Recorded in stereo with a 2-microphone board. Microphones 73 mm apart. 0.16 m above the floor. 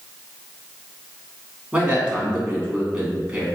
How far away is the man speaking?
About 1.2 m.